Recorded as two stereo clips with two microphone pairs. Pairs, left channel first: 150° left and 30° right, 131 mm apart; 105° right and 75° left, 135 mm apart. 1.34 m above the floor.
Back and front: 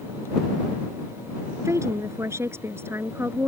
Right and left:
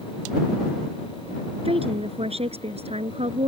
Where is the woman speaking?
35° left; by 3.5 s 40° left.